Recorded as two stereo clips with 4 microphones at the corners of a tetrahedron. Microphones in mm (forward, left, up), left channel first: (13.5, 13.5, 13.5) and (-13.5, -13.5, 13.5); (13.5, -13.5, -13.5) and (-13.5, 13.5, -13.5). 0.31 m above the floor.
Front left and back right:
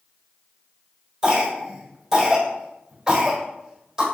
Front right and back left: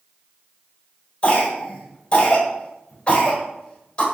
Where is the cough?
70° right, 1.6 m.